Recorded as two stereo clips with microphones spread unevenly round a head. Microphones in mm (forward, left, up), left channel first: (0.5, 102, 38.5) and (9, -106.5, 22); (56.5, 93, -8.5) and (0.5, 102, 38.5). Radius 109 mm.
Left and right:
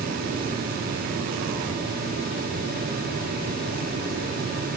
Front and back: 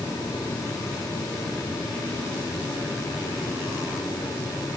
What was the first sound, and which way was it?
Only background noise.